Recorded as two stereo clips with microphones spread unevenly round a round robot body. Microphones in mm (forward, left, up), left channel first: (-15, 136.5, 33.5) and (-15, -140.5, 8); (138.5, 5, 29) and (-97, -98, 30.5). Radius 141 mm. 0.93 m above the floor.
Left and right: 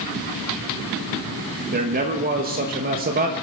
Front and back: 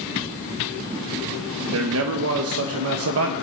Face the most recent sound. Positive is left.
turn(degrees=-140)